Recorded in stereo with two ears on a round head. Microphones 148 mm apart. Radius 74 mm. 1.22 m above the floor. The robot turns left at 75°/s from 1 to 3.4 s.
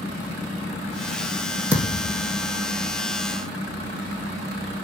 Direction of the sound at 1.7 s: 165° right.